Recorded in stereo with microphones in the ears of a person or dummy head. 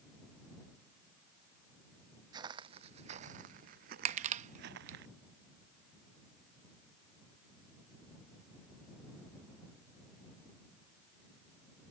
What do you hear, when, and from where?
2.3 s footsteps: 25° right (ahead or behind); by 5.0 s 60° right (ahead or behind)
4.0 s crushing: 35° right (ahead or behind)